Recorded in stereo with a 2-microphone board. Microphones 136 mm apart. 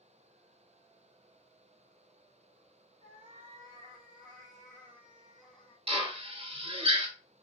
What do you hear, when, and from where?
3.0 s a cat meowing: 50° right (ahead or behind), 2.0 m; by 5.8 s 15° left (ahead or behind), 1.0 m
5.9 s a drill: 45° right (ahead or behind), 0.8 m